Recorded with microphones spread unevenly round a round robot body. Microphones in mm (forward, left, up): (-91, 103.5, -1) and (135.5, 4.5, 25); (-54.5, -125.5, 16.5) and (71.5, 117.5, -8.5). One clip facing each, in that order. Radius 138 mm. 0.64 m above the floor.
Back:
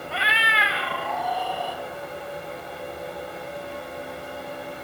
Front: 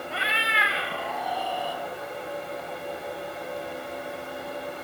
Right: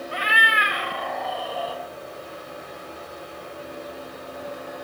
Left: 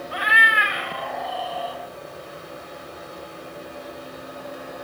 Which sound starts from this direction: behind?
A cat meowing, at 0.1 s.